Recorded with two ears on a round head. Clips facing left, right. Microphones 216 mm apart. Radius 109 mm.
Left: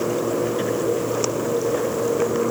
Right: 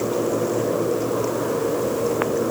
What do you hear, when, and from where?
Only background noise.